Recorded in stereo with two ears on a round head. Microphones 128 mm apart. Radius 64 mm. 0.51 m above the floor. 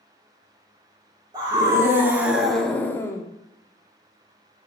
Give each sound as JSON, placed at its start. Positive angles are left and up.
{"t": 1.3, "sound": "a scream", "side_deg": -30, "distance_m": 1.3}